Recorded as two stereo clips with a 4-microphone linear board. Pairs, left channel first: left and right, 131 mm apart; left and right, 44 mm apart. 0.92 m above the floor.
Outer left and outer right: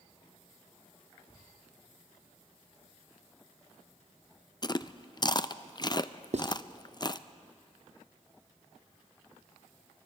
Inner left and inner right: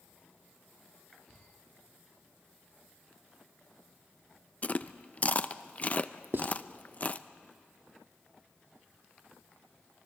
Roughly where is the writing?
Right.